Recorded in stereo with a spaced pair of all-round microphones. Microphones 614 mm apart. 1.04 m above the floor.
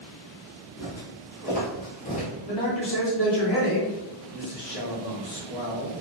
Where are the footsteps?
15° left (ahead or behind), 1.6 m; by 2.3 s 10° left (ahead or behind), 1.0 m.